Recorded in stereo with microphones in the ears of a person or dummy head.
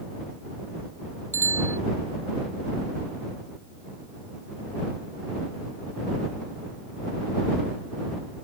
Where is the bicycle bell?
10° right (ahead or behind).